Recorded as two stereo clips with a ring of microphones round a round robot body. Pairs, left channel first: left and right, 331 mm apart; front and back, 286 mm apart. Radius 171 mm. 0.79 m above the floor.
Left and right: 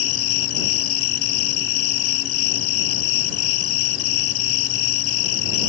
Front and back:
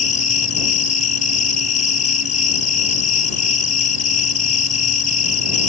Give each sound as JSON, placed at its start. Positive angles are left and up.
{"t": 0.0, "sound": "an insect", "azimuth_deg": 65}